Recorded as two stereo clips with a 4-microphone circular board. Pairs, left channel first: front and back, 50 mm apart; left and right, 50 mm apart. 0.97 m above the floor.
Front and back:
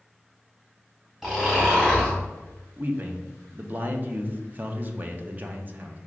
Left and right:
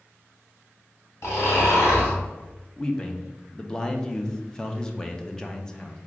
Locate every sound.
1.2 s snoring: 100° left, 2.0 m
2.8 s a man speaking: 155° left, 0.5 m